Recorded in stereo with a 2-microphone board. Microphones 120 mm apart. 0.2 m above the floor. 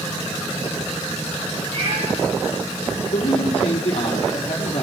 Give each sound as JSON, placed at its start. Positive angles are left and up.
{"t": 1.7, "sound": "a cat meowing", "side_deg": -85, "distance_m": 10.0}
{"t": 3.1, "sound": "a man speaking", "side_deg": 70, "distance_m": 7.5}